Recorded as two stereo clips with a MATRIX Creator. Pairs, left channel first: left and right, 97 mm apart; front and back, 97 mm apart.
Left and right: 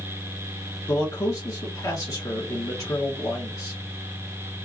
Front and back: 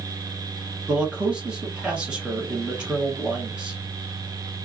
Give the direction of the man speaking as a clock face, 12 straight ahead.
8 o'clock.